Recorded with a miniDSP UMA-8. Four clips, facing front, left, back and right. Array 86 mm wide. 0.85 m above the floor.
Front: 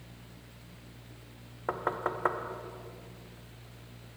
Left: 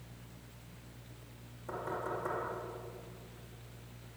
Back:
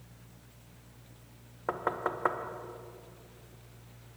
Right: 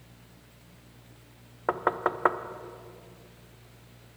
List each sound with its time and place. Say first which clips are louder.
1.7 s knocking: right 11 dB, even; 90° right, 0.5 m